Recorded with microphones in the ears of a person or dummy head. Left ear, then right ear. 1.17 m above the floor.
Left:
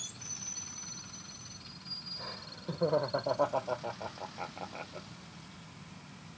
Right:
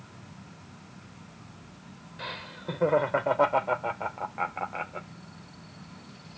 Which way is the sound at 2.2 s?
80° right.